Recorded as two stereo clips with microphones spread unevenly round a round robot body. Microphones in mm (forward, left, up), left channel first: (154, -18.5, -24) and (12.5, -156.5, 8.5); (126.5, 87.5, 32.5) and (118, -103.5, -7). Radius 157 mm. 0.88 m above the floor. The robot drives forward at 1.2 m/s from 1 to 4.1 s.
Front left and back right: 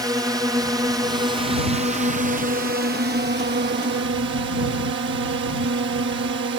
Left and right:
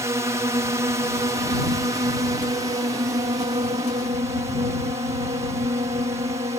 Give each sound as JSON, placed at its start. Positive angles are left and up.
{"t": 0.0, "sound": "a drone", "azimuth_deg": -65}